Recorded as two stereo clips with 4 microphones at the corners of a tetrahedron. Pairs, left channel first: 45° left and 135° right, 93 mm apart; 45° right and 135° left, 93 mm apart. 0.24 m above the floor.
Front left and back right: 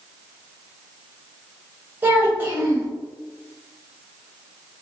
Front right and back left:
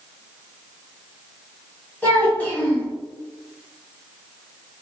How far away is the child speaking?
About 1.2 m.